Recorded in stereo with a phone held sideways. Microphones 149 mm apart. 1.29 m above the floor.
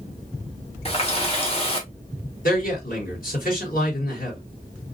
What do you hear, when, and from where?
0.8 s a running tap: 40° left (ahead or behind), 1.1 m
2.4 s a man speaking: 65° left (ahead or behind), 3 m